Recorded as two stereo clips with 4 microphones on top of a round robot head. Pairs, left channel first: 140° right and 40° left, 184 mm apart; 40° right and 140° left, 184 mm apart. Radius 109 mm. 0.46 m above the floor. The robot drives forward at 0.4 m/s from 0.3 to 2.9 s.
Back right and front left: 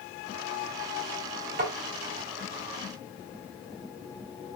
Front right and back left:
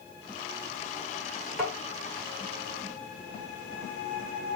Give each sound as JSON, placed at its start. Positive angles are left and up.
{"t": 1.6, "sound": "tapping", "azimuth_deg": 50, "distance_m": 2.5}